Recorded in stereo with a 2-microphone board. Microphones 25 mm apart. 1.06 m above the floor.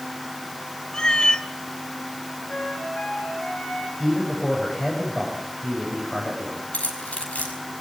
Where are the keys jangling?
75° left (ahead or behind), 5.5 m.